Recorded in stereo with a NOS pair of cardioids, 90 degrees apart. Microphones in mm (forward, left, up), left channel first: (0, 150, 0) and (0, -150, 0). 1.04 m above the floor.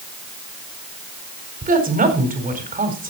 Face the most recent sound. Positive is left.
turn(degrees=-30)